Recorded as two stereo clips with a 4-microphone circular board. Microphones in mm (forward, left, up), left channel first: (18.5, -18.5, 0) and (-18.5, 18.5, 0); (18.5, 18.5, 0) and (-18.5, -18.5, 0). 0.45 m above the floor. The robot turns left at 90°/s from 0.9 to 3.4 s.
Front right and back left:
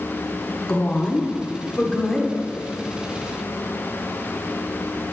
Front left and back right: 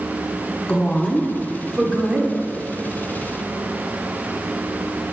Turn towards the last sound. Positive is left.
turn(degrees=140)